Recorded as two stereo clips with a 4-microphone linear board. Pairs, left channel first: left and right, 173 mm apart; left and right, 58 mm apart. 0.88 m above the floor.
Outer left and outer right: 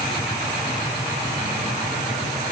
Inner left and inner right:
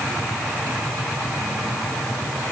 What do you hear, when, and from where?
Only background noise.